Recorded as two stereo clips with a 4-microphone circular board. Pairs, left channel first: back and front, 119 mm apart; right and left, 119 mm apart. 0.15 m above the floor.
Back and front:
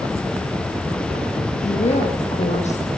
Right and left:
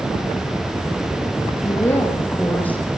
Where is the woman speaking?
160° right, 8.5 m; by 2.8 s 170° right, 9 m.